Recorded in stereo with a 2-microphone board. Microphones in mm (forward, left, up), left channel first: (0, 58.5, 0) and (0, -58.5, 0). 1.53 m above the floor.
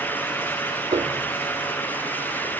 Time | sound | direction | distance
0.9 | a piano | 55° right (ahead or behind) | ?